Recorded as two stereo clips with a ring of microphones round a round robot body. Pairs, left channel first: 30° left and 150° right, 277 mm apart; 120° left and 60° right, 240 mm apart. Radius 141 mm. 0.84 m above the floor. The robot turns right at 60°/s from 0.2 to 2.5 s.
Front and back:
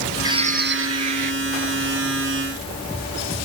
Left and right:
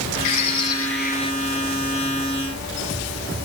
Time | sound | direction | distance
0.2 | a bird | 130° left | ?